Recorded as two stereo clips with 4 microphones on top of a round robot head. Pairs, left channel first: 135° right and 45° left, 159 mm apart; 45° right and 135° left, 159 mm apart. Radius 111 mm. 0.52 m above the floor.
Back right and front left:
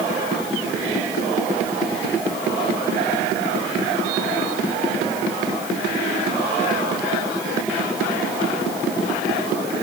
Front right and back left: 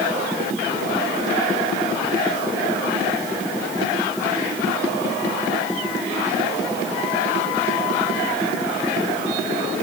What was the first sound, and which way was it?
Only background noise.